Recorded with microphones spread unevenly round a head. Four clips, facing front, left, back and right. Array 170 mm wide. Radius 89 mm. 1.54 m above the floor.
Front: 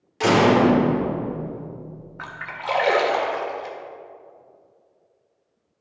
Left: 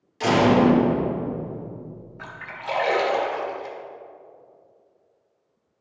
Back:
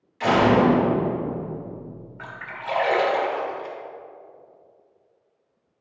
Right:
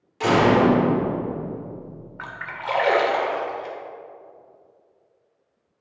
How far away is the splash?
About 1.7 m.